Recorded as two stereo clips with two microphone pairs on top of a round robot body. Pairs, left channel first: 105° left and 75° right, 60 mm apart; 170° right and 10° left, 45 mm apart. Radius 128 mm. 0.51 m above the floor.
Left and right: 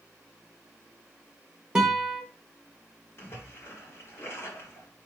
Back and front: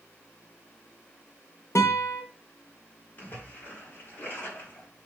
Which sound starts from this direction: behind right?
A guitar, at 1.8 s.